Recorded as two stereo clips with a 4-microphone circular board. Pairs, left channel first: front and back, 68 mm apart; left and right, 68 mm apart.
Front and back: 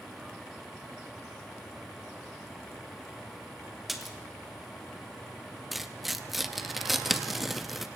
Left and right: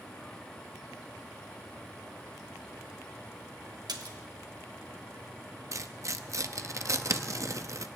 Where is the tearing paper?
95° right, 0.7 m.